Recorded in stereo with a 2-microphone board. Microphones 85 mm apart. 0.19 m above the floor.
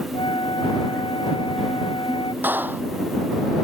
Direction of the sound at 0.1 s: 75° left (ahead or behind).